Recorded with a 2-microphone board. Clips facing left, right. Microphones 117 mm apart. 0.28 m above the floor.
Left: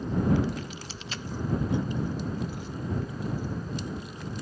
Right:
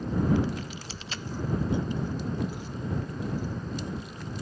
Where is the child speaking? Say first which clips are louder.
Even; 40° right (ahead or behind); by 3.2 s 10° right (ahead or behind).